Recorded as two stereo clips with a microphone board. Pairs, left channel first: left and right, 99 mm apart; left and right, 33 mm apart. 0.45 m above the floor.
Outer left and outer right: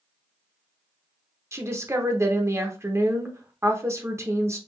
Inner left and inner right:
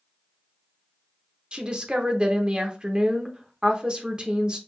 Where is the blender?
I don't hear a blender.